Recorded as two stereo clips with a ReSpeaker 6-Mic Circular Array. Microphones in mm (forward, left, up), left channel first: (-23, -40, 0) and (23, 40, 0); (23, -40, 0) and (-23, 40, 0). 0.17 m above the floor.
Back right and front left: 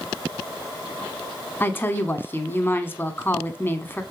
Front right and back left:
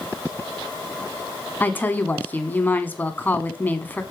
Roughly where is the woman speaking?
Right.